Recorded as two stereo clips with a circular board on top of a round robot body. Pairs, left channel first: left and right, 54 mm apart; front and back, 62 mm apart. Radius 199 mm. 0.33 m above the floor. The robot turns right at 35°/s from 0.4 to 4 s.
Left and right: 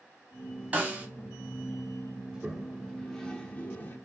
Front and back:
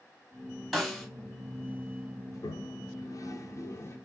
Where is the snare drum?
80° right, 1.6 m; by 1.1 s 65° right, 1.6 m.